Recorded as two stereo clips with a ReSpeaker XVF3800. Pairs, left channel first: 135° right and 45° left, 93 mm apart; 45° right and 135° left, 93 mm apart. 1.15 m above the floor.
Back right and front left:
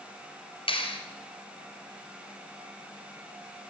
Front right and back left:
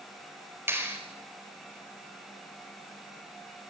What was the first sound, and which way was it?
A clap, 160° right.